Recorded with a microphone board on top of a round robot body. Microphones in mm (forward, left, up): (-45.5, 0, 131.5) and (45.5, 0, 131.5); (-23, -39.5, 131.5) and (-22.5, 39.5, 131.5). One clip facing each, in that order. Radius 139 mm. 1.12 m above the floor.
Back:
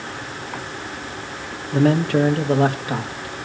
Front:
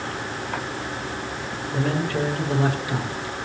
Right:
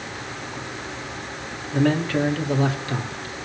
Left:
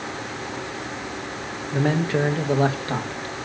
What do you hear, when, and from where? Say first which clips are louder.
1.7 s a man speaking: back 8 dB, right 1 dB; 165° left, 1.4 m; by 3.4 s 130° left, 2 m